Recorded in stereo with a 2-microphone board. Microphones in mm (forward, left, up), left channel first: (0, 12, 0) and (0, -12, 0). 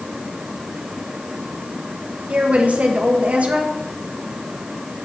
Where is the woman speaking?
70° right (ahead or behind), 1.4 m.